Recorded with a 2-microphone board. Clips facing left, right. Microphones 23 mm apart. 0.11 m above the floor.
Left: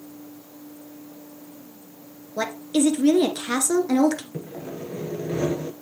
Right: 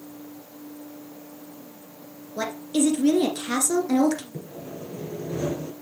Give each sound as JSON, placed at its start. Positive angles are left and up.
{"t": 2.4, "sound": "a woman speaking", "side_deg": 20, "distance_m": 1.4}
{"t": 4.3, "sound": "sawing", "side_deg": 40, "distance_m": 1.1}